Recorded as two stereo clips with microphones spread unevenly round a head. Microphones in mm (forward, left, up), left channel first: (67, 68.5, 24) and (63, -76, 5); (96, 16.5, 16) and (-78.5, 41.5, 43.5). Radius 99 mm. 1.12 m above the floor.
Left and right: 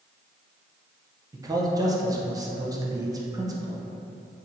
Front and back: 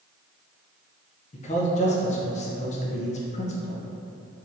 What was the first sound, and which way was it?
A man speaking, 35° right.